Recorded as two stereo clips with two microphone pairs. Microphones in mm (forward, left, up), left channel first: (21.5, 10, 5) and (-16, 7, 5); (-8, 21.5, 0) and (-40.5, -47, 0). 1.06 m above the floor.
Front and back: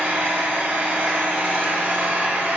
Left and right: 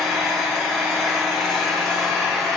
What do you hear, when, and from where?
0.0 s an engine running: 155° left, 0.8 m